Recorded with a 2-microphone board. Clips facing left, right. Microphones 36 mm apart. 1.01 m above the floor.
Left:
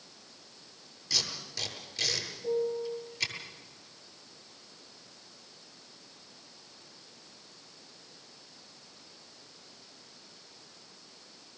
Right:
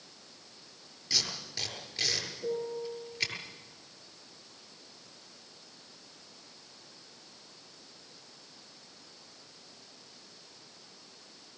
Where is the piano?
80° right, 7 m.